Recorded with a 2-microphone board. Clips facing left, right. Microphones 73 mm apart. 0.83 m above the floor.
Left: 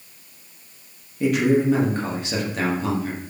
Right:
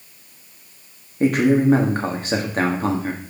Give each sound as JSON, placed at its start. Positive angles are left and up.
{"t": 1.2, "sound": "a man speaking", "side_deg": -45, "distance_m": 1.4}